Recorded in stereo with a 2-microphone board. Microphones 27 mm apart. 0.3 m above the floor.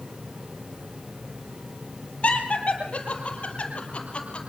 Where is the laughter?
55° left (ahead or behind), 7.5 m; by 4.4 s 45° left (ahead or behind), 6.5 m.